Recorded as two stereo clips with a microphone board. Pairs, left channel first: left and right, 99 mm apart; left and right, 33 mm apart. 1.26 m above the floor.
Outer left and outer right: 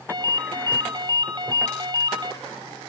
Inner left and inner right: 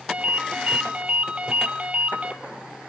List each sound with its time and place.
0.1 s a ringtone: 45° right (ahead or behind), 1.7 m